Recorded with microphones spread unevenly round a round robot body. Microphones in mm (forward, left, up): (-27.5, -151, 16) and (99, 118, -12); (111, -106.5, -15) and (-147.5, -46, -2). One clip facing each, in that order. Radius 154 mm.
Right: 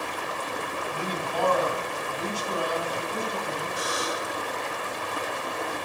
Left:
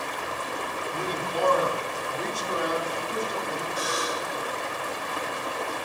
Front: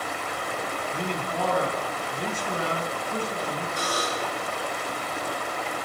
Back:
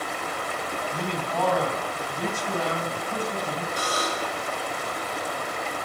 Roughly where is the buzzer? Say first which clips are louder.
Even, even; behind left.